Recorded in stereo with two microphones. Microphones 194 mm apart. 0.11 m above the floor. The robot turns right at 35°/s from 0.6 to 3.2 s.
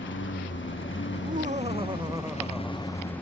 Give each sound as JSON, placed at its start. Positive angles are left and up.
{"t": 0.0, "sound": "a lawn mower", "azimuth_deg": 80}
{"t": 1.1, "sound": "laughter", "azimuth_deg": -55}